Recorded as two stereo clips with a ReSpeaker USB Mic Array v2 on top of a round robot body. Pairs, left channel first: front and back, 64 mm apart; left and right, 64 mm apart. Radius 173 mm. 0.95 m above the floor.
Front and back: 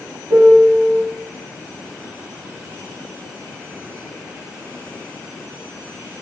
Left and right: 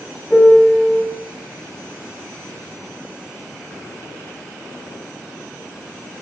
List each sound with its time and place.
0.3 s a piano: straight behind, 3.5 m